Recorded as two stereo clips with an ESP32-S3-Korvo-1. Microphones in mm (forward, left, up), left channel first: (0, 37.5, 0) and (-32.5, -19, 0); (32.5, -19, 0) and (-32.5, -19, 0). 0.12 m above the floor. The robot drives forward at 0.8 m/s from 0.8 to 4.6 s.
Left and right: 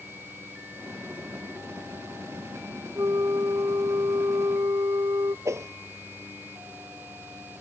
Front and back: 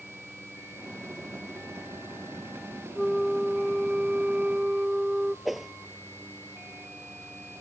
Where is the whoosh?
95° right.